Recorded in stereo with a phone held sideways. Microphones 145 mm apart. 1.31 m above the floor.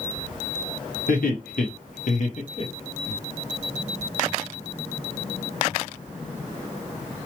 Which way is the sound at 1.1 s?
75° left (ahead or behind).